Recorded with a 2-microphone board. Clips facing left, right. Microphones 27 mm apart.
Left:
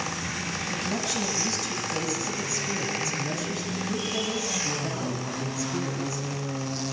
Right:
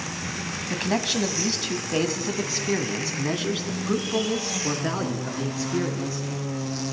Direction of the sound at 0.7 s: 40° right (ahead or behind).